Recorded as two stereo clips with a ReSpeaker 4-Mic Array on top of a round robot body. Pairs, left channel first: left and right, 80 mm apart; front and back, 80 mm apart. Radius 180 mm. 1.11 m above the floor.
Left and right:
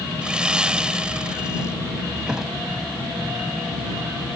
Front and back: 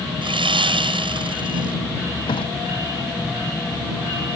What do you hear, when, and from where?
0.2 s sawing: 170° right
2.3 s a thud: 10° right